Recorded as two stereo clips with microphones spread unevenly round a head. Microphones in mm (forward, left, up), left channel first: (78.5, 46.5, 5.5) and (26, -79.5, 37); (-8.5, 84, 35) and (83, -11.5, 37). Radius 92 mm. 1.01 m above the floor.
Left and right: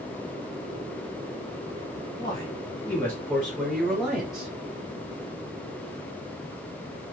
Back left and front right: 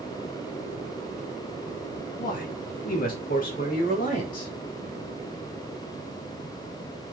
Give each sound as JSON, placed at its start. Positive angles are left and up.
{"t": 2.2, "sound": "a man speaking", "azimuth_deg": 130, "distance_m": 2.0}